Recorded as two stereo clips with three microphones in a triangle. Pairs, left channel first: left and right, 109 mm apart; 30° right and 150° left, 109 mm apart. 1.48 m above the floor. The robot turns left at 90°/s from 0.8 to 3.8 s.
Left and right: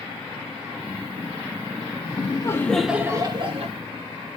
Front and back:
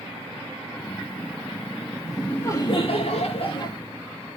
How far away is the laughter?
About 2 m.